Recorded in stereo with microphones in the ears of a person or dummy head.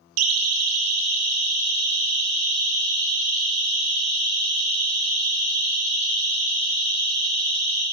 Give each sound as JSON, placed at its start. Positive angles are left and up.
{"t": 0.2, "sound": "a siren", "side_deg": -80, "distance_m": 2.0}